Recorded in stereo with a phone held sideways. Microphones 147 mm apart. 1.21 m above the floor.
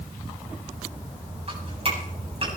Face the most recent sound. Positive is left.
turn(degrees=-40)  # may be behind; listen again after turning